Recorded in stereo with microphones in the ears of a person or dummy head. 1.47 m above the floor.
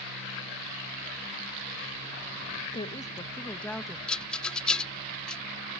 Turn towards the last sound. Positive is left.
turn(degrees=5)  # may be behind; listen again after turning